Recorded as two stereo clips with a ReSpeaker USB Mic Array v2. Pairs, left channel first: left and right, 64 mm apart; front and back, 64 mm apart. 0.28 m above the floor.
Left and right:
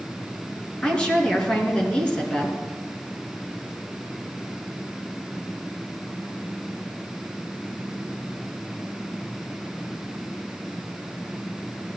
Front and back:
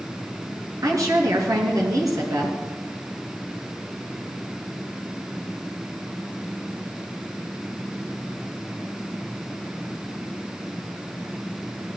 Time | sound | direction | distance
0.8 | a woman speaking | 160° left | 3.5 m